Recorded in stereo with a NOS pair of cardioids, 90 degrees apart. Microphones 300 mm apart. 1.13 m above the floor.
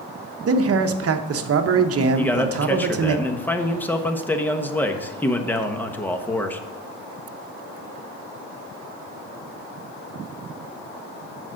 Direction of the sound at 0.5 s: 50° right.